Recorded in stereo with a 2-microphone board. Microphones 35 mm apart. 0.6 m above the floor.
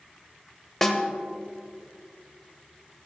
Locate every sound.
0.8 s a snare drum: 5° left (ahead or behind), 1.7 m